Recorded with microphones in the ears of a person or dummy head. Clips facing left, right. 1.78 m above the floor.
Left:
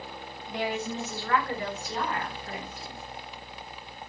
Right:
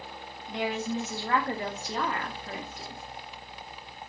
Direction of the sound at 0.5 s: 5° left (ahead or behind).